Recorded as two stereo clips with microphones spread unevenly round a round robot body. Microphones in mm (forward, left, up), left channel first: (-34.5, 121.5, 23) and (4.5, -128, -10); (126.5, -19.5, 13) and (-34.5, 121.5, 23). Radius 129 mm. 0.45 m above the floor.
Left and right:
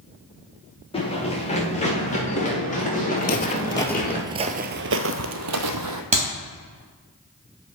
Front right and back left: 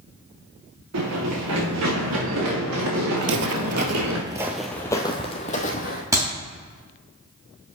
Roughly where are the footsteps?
Behind left.